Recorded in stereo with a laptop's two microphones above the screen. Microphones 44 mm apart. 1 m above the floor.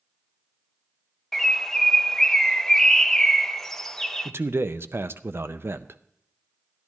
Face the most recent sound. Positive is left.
turn(degrees=-60)  # may be behind; listen again after turning